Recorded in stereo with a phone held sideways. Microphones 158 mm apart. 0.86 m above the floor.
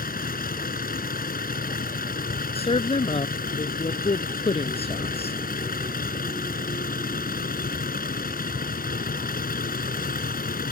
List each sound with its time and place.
0.0 s a vehicle: 65° left (ahead or behind)
2.5 s a woman speaking: 40° left (ahead or behind)